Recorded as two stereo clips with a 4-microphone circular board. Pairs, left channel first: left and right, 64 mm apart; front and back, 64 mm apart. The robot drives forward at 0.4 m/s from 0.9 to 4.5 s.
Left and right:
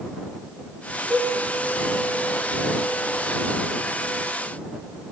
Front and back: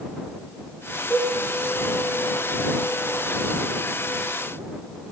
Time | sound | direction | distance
1.1 | a cowbell | 30° right | 1.9 m